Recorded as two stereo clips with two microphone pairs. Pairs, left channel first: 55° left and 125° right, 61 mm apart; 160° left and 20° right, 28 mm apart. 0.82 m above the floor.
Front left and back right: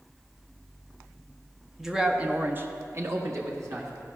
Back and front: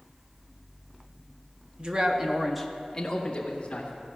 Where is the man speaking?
40° right, 1.1 m; by 3.9 s 155° right, 1.6 m.